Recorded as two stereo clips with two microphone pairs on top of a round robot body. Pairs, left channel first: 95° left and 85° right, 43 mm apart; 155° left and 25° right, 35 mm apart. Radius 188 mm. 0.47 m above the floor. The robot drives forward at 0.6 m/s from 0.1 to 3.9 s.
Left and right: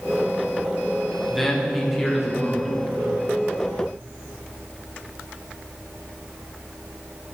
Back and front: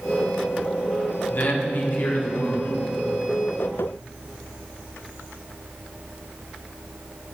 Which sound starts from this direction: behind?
A man speaking, at 1.3 s.